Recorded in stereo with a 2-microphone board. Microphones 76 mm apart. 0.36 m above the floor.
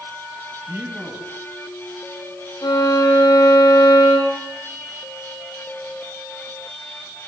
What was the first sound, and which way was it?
A man speaking, 30° right (ahead or behind).